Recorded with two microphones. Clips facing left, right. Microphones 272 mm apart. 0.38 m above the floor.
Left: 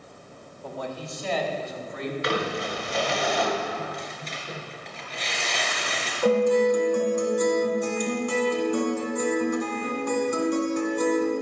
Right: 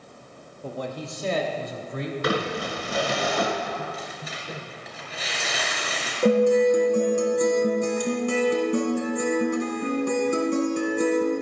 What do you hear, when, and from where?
0.6 s a man speaking: 25° right (ahead or behind), 0.9 m; by 3.2 s 75° right (ahead or behind), 2.5 m
2.2 s crumpling: 55° right (ahead or behind), 2.5 m
3.8 s tearing paper: 5° right (ahead or behind), 1.9 m
6.2 s a guitar: 35° right (ahead or behind), 1.7 m